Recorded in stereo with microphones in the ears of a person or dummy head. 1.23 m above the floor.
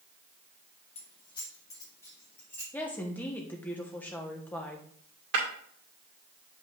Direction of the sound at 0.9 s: 30° left (ahead or behind).